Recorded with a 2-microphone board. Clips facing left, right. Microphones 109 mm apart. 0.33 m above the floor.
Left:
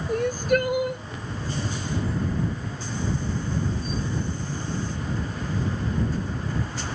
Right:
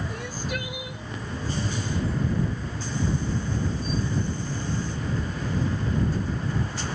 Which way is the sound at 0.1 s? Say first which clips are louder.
Left 10 dB; 50° left (ahead or behind).